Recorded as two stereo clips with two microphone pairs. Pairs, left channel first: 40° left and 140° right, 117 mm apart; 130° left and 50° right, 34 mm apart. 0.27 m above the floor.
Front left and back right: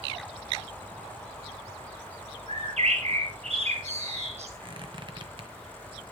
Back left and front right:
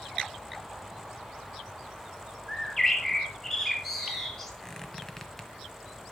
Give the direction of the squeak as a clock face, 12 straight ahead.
5 o'clock.